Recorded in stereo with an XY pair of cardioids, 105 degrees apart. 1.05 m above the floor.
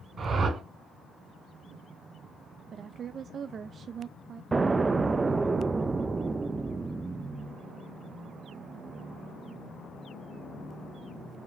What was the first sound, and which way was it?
A whoosh, 45° right.